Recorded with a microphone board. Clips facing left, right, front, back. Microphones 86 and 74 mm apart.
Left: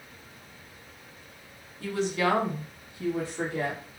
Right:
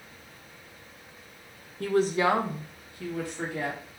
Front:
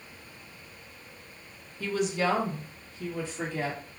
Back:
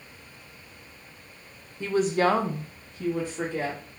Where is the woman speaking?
115° right, 0.7 m; by 3.8 s 140° left, 1.7 m.